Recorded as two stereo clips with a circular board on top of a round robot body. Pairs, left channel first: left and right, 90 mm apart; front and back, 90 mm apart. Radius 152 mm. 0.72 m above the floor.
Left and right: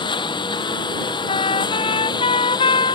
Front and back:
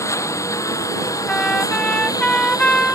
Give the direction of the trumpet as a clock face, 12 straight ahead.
9 o'clock.